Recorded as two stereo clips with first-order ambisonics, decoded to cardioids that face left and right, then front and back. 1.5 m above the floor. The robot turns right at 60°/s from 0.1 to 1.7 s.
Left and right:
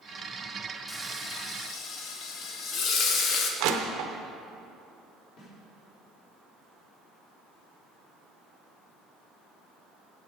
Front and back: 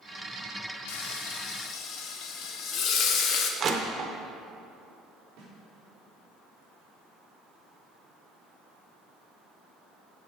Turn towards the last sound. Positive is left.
turn(degrees=130)